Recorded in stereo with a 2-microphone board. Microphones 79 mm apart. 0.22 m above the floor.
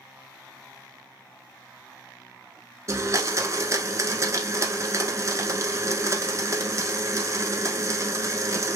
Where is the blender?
40° right (ahead or behind), 0.8 m.